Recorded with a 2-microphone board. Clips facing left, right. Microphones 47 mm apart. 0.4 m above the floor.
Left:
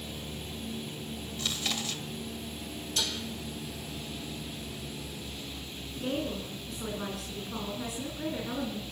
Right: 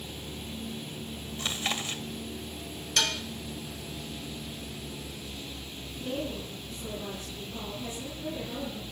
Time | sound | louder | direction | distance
1.4 | chewing | right 2 dB | 30° right (ahead or behind) | 1.7 m
3.0 | dishes clattering | right 6 dB | 65° right (ahead or behind) | 1.7 m
6.0 | a woman speaking | left 1 dB | 70° left (ahead or behind) | 5.5 m